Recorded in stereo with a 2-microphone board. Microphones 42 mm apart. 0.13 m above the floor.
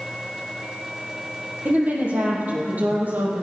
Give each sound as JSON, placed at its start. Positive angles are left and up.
{"t": 1.6, "sound": "a woman speaking", "side_deg": -40, "distance_m": 4.0}